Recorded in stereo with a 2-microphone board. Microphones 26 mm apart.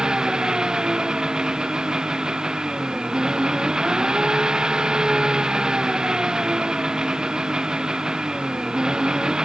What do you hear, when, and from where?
0.0 s an engine running: 35° right (ahead or behind)